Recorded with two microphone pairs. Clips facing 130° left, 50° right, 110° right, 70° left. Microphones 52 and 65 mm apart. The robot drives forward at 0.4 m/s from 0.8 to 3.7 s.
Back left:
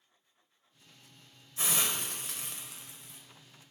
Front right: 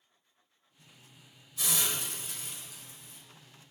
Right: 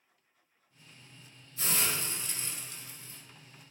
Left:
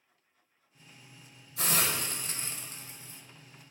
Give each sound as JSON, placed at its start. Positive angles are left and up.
{"t": 1.6, "sound": "a hiss", "azimuth_deg": 75, "distance_m": 0.5}